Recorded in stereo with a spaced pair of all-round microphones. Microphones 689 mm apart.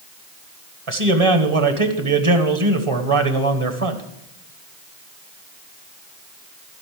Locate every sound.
0.9 s a man speaking: 45° right (ahead or behind), 1.5 m